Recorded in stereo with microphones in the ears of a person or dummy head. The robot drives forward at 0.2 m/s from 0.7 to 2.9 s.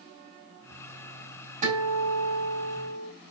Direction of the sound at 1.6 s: 40° right (ahead or behind).